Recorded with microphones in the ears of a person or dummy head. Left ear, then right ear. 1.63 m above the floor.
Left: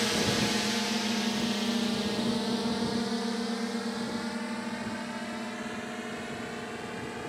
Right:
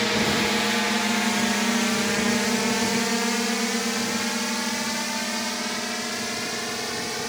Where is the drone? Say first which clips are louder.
Right 6 dB; 25° right (ahead or behind); by 7.3 s 80° right.